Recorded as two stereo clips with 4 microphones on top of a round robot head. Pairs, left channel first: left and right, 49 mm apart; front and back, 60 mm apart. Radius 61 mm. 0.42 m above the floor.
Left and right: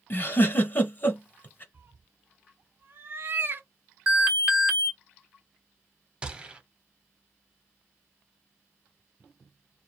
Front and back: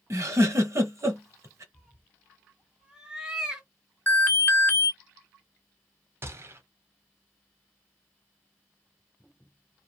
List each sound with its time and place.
0.1 s a giggle: 140° left, 1.1 m
1.7 s a cat meowing: 110° right, 0.7 m
4.1 s an alarm: 20° right, 1.2 m
6.2 s a gunshot: 155° right, 0.8 m